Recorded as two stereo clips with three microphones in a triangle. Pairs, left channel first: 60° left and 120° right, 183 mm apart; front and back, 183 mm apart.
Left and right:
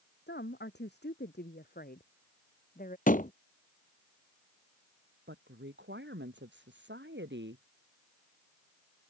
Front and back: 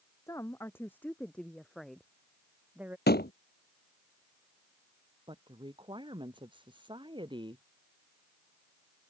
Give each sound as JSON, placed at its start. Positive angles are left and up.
{"t": 0.3, "sound": "a woman speaking", "azimuth_deg": 75}
{"t": 3.1, "sound": "a door slam", "azimuth_deg": 20}
{"t": 5.3, "sound": "a woman speaking", "azimuth_deg": -115}